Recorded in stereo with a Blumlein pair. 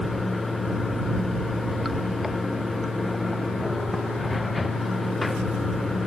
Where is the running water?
10° left.